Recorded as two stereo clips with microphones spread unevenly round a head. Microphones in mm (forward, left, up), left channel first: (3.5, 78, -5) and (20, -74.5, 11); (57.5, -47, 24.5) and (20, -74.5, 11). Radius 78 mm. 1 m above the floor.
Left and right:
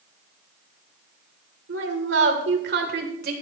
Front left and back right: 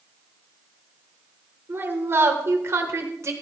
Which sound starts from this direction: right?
A woman speaking, at 1.7 s.